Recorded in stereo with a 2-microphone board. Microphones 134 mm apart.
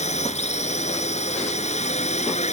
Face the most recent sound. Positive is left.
turn(degrees=55)  # may be behind; listen again after turning